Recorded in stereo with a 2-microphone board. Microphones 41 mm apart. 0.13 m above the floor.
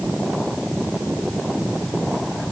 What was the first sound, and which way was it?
Only background noise.